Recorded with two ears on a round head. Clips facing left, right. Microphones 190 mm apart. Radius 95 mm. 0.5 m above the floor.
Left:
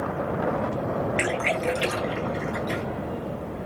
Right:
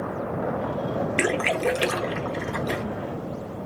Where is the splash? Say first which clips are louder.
Right 2 dB; 55° right (ahead or behind), 0.8 m.